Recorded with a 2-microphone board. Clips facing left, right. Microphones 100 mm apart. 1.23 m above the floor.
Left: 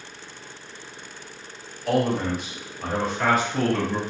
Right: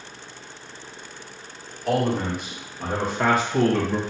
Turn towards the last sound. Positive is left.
turn(degrees=-15)  # may be behind; listen again after turning